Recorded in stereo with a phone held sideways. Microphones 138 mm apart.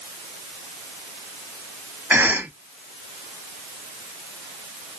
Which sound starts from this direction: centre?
A cough, at 2.1 s.